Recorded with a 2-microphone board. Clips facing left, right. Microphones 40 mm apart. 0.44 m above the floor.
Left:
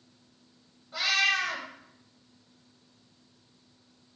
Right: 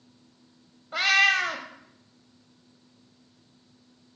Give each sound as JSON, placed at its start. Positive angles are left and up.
{"t": 0.9, "sound": "a cat meowing", "side_deg": -50, "distance_m": 0.6}